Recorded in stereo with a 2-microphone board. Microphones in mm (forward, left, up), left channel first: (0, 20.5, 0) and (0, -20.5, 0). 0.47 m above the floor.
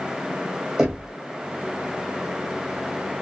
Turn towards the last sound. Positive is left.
turn(degrees=-5)  # may be behind; listen again after turning